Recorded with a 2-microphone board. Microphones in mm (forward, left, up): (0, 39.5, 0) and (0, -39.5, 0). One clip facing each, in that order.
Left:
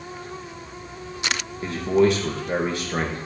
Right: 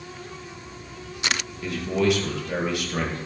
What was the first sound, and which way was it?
A man speaking, 35° left (ahead or behind).